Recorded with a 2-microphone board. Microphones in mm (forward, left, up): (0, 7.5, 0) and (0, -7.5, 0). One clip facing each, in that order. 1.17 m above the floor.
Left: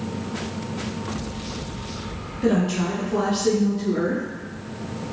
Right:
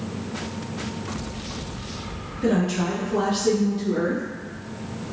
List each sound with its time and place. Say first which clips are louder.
2.4 s a woman speaking: left 1 dB; 5° left (ahead or behind), 0.6 m; by 4.2 s 15° right (ahead or behind), 1.6 m